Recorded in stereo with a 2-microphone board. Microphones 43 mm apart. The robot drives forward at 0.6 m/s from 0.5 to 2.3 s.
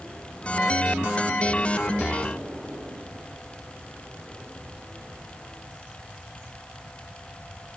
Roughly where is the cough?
I don't hear a cough.